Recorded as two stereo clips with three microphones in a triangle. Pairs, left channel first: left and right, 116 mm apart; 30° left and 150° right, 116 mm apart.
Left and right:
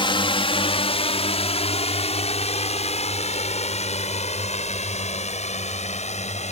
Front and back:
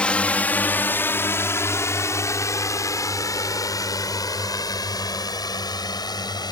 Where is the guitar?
No guitar in this recording.